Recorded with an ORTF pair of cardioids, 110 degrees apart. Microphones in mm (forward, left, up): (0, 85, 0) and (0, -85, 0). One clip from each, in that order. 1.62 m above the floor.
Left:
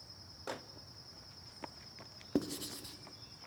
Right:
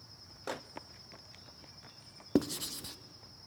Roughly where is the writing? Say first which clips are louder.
Right 5 dB; ahead right.